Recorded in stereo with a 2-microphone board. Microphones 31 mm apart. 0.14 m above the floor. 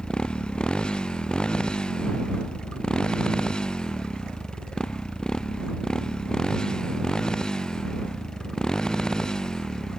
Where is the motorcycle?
25° left (ahead or behind); by 10.0 s 20° left (ahead or behind).